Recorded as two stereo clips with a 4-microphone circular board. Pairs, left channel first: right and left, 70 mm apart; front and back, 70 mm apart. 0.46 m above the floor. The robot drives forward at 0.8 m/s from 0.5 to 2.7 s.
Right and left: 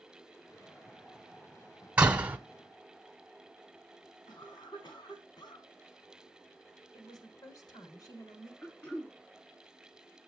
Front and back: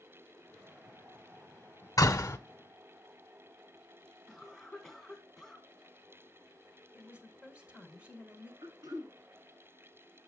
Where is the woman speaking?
110° right, 3.5 m.